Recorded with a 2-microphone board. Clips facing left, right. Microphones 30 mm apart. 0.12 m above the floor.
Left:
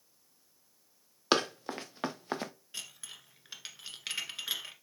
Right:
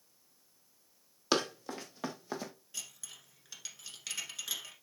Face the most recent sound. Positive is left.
turn(degrees=30)  # may be behind; listen again after turning